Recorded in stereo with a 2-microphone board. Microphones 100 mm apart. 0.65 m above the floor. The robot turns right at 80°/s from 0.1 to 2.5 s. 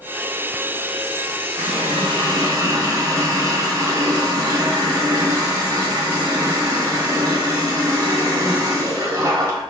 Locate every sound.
1.6 s a running tap: 110° right, 1.9 m; by 9.6 s 35° right, 1.9 m